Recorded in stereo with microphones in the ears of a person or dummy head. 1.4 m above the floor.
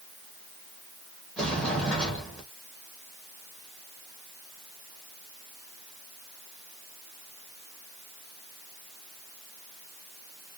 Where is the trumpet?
No trumpet in this recording.